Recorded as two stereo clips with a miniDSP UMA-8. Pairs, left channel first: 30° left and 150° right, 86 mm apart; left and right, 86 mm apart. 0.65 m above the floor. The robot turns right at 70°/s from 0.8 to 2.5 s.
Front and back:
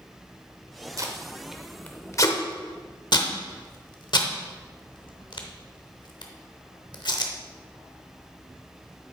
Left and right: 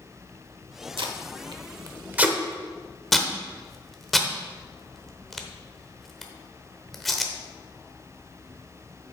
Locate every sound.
1.0 s tape being pulled: 105° right, 1.0 m; by 7.3 s straight ahead, 1.0 m